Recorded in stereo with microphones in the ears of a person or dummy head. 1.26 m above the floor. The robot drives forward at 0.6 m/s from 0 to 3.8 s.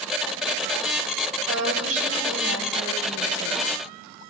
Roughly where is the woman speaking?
Right.